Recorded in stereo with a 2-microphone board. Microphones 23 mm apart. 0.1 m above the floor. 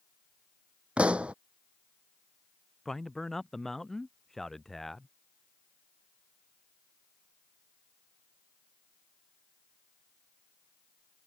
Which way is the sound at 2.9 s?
15° left (ahead or behind).